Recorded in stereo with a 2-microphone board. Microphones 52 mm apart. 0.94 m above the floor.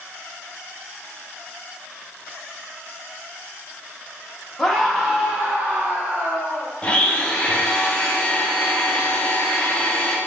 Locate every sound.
4.6 s a scream: 10° left (ahead or behind), 1.3 m; by 6.7 s 50° right (ahead or behind), 2 m
6.8 s a blender: 25° left (ahead or behind), 0.8 m